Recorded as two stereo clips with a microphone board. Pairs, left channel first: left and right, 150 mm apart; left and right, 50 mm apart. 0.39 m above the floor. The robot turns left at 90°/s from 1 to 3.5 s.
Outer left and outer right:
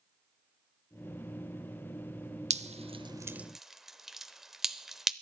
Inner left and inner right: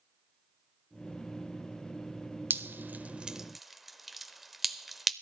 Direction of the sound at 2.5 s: 45° right (ahead or behind).